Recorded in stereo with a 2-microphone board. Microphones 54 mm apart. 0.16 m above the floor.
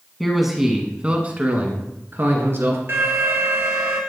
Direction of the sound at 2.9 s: 45° right (ahead or behind).